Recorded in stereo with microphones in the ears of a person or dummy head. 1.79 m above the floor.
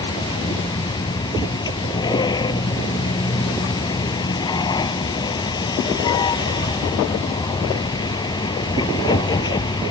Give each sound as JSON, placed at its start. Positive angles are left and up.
{"t": 0.0, "sound": "a vehicle", "side_deg": 25}